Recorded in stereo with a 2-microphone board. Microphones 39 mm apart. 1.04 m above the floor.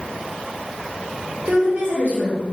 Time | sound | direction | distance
1.4 | a woman speaking | 55° right (ahead or behind) | 1.2 m